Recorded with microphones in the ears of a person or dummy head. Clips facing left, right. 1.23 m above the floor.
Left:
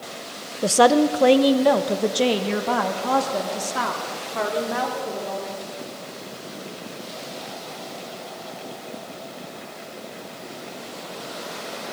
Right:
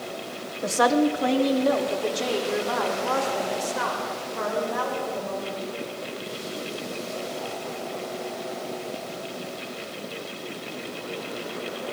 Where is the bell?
I don't hear a bell.